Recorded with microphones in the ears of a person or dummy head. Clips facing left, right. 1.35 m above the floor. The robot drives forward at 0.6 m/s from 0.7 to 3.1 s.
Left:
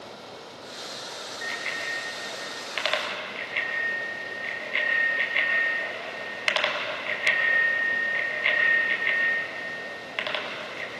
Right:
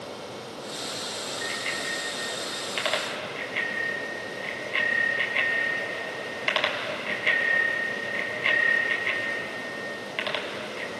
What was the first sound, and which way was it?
A bicycle bell, centre (ahead or behind).